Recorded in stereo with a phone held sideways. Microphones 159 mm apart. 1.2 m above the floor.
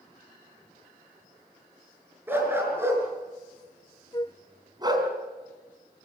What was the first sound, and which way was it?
A dog barking, 15° right (ahead or behind).